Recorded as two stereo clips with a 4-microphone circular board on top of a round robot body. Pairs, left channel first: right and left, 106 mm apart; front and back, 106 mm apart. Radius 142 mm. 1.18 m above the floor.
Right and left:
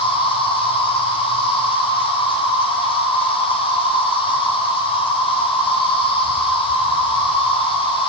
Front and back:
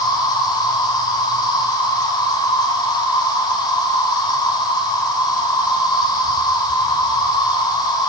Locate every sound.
0.0 s an insect: 50° right, 1.6 m